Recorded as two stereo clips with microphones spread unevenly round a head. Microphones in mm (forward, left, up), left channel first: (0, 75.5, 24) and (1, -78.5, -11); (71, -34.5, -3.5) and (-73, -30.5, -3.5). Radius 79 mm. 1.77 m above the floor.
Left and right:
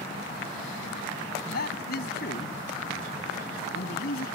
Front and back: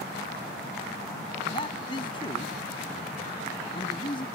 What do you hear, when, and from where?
1.5 s a man speaking: 60° left